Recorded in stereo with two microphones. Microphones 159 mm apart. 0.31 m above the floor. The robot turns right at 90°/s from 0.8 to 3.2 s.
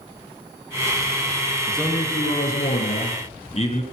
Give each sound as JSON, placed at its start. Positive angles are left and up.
{"t": 1.7, "sound": "a man speaking", "azimuth_deg": -5, "distance_m": 5.0}